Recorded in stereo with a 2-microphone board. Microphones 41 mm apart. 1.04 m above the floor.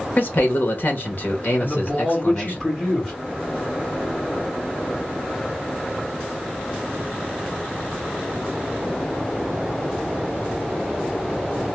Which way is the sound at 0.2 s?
50° left (ahead or behind).